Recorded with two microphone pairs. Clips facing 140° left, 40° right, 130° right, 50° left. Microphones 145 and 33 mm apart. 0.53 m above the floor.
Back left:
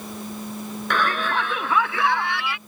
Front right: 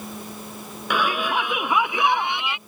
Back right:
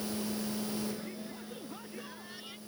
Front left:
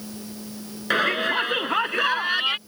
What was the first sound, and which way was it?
A shout, 40° left.